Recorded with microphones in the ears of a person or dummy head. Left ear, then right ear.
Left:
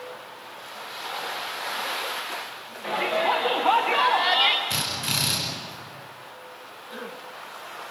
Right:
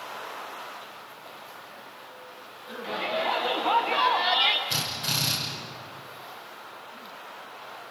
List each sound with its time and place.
2.8 s a shout: 35° left (ahead or behind), 2.0 m; by 4.6 s 5° left (ahead or behind), 0.9 m
4.7 s a drill: 30° left (ahead or behind), 6 m